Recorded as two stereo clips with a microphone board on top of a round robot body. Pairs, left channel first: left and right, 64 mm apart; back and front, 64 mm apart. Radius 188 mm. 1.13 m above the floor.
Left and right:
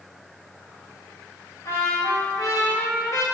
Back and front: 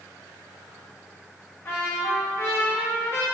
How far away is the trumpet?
About 2.0 m.